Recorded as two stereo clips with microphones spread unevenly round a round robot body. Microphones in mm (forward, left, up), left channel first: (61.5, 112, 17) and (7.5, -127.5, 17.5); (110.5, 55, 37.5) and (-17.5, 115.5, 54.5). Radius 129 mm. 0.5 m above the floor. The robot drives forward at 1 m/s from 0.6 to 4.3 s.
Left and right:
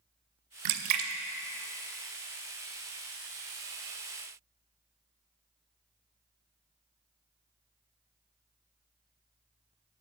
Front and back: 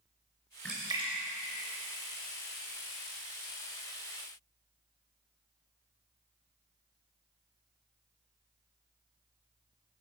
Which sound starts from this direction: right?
A splash, at 0.7 s.